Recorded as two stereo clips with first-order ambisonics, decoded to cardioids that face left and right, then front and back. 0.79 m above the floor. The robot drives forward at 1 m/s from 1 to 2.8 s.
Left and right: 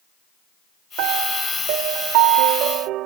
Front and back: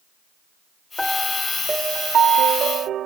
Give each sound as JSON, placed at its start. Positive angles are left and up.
{"t": 1.0, "sound": "a piano", "azimuth_deg": -85}